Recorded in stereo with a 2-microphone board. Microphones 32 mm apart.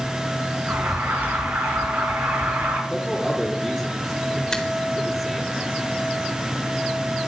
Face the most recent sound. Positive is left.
turn(degrees=15)  # may be behind; listen again after turning